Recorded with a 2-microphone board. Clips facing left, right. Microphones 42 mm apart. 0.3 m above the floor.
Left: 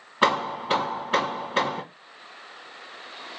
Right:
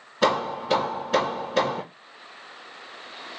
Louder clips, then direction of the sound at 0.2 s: Even; 25° left (ahead or behind).